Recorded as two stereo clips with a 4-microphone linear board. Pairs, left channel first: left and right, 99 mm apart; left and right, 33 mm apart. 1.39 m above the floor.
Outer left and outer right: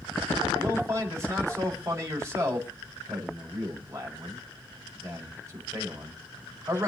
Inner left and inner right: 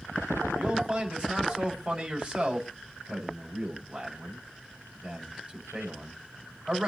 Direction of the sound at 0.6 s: 30° right (ahead or behind).